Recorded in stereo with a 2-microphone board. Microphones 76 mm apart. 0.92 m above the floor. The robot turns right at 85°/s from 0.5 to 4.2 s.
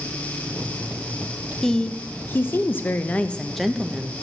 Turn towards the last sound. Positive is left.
turn(degrees=-135)